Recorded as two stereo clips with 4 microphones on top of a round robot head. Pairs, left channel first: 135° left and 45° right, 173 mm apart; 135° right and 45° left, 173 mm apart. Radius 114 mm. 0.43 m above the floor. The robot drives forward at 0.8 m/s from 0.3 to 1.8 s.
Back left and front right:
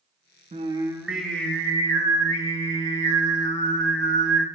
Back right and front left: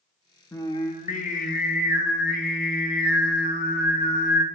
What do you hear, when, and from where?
0.5 s singing: 70° right, 0.8 m; by 4.5 s 155° right, 1.2 m